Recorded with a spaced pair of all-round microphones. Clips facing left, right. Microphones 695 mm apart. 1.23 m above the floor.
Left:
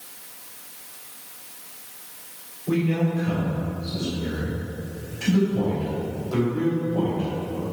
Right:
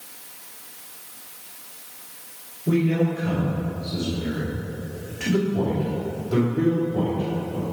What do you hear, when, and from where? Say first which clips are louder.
2.7 s a man speaking: right 2 dB; 65° right (ahead or behind), 2.5 m; by 7.6 s 60° right (ahead or behind), 3.5 m